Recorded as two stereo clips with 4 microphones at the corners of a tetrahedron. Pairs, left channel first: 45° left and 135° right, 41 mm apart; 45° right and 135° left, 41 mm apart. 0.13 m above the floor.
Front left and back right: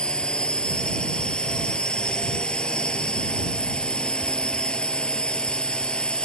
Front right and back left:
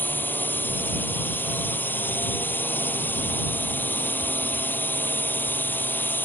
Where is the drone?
20° right.